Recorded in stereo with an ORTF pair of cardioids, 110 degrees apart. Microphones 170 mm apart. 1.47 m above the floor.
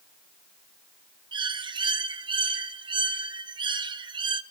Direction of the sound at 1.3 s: 25° right.